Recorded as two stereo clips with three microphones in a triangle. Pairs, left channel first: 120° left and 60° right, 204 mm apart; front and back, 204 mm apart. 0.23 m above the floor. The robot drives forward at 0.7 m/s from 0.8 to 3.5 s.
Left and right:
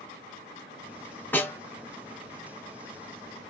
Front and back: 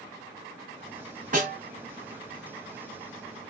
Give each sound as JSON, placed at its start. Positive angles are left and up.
{"t": 1.3, "sound": "a snare drum", "azimuth_deg": -165, "distance_m": 2.0}